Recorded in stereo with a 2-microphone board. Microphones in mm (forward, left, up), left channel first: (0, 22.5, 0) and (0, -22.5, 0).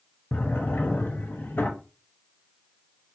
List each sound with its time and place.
0.3 s a drawer: 55° left (ahead or behind), 0.7 m